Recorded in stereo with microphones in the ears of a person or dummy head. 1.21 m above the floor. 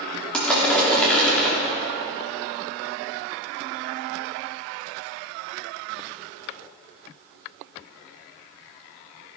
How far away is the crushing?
About 3 m.